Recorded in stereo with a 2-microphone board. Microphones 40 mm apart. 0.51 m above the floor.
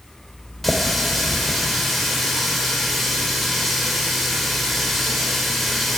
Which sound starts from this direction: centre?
A running tap, at 0.6 s.